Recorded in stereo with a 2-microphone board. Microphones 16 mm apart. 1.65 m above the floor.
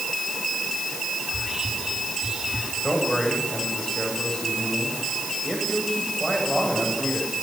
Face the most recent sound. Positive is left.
turn(degrees=40)  # may be behind; listen again after turning